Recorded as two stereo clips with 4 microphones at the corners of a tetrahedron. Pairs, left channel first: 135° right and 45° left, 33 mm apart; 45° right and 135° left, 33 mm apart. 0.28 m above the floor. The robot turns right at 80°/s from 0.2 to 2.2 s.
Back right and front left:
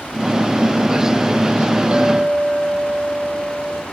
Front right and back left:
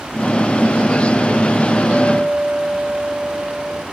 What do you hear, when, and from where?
1.9 s a clink: 85° left, 1.3 m; by 3.8 s 110° left, 1.3 m